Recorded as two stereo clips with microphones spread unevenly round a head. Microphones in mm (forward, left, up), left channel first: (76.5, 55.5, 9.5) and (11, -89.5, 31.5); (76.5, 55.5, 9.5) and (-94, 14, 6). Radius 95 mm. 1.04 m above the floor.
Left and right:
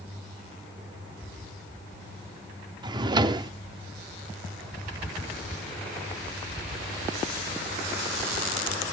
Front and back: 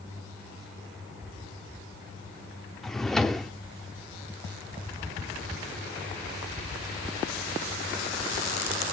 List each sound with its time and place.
2.8 s a drawer: 70° right, 0.7 m